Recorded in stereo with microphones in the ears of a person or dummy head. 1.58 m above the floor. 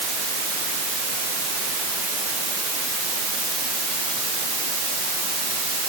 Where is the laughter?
No laughter in this recording.